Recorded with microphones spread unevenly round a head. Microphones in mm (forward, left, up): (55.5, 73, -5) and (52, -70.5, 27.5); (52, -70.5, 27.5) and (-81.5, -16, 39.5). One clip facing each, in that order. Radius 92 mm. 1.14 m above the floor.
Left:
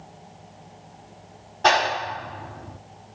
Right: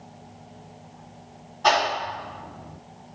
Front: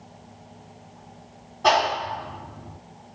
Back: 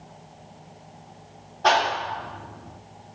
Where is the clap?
65° left, 2.5 m.